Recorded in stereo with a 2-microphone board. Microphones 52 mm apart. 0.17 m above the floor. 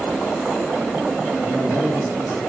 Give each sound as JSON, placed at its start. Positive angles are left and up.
{"t": 1.4, "sound": "a man speaking", "side_deg": -30, "distance_m": 3.5}